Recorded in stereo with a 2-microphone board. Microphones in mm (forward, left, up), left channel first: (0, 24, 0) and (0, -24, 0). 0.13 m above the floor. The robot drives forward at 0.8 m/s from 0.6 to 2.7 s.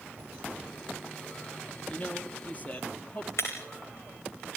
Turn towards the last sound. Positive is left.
turn(degrees=65)  # may be behind; listen again after turning